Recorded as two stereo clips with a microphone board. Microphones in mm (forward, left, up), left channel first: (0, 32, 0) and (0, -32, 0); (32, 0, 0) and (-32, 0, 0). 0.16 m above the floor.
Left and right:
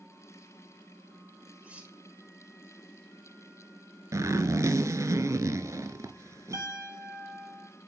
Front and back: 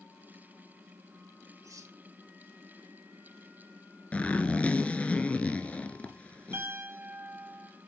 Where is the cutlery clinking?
155° right, 2.5 m.